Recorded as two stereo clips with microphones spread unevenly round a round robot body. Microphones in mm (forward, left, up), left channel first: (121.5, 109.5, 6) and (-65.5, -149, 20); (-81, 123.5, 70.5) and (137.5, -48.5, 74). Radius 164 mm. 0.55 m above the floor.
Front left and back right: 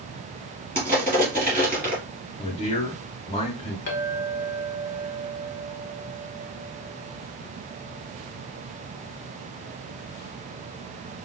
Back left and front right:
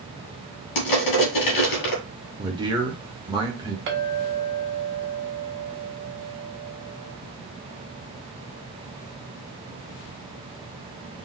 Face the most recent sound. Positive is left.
turn(degrees=0)